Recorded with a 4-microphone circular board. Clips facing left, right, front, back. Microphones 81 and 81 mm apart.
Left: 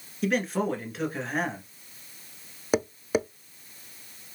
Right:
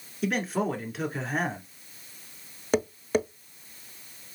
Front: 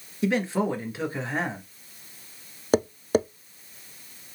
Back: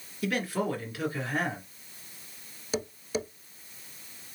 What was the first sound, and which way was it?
A man speaking, 5° right.